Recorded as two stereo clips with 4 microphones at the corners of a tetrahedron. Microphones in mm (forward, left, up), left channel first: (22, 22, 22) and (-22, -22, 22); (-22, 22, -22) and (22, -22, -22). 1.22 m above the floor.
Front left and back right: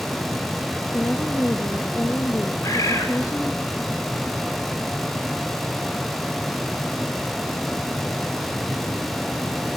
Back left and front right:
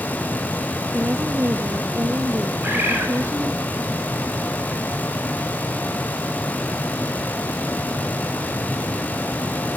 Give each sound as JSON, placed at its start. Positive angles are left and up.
{"t": 0.9, "sound": "a woman speaking", "azimuth_deg": 0, "distance_m": 1.9}
{"t": 2.6, "sound": "a bird", "azimuth_deg": 15, "distance_m": 8.5}